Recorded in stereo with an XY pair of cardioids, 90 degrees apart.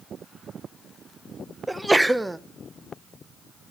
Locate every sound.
1.7 s a sneeze: 10° right, 1.3 m